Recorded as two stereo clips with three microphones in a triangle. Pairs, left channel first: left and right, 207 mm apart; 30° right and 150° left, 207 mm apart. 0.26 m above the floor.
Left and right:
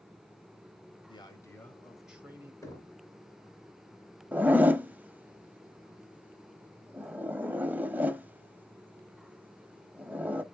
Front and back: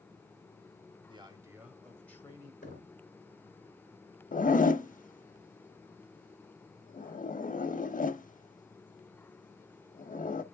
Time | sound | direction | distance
1.1 | a man speaking | 125° left | 1.0 m
2.6 | knocking | 15° left | 2.5 m
4.3 | a zipper | 10° right | 0.5 m